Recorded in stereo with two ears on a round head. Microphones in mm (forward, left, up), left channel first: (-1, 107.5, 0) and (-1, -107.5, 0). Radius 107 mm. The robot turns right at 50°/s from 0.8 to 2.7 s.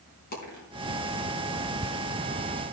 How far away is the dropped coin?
About 4.5 m.